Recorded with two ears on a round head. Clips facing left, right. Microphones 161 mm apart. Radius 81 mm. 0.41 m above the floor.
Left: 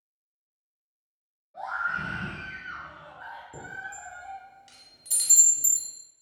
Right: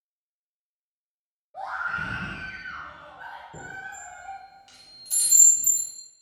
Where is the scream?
35° right (ahead or behind), 1.7 m; by 4.4 s 20° left (ahead or behind), 1.5 m.